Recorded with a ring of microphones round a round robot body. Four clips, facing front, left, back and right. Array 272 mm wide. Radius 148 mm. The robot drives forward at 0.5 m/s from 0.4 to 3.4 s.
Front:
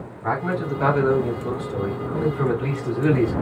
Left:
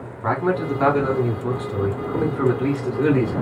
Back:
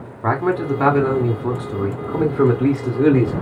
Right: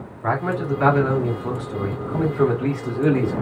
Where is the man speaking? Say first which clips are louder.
Left 2 dB, back 5 dB; 165° left, 2.5 m; by 3.3 s 170° left, 4 m.